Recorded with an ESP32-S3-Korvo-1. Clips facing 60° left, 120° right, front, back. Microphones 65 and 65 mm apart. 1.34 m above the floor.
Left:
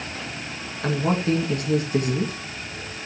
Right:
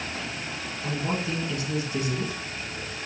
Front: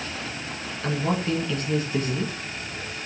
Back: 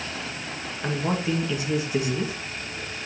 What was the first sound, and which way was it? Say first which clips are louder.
A man speaking: left 7 dB, front 1 dB; 100° left.